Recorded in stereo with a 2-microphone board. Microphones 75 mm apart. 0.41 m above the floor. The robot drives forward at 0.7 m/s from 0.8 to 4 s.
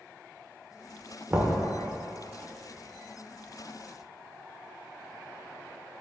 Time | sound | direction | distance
1.3 | knocking | 20° right (ahead or behind) | 1.0 m